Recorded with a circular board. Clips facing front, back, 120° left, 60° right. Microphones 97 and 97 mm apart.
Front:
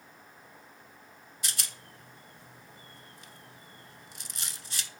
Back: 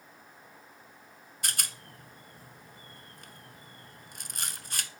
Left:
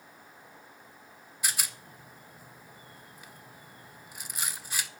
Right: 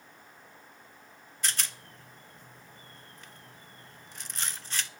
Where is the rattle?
160° right, 0.8 m.